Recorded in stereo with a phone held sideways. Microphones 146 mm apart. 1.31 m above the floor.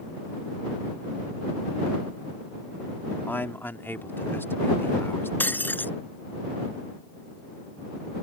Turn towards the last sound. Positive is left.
turn(degrees=10)  # may be behind; listen again after turning